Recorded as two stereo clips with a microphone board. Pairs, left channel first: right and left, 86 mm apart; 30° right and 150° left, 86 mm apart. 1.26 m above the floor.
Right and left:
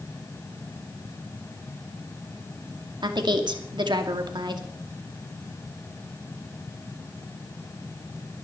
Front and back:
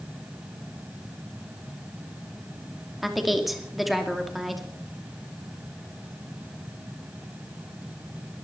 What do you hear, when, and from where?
3.0 s a woman speaking: 60° left, 2.5 m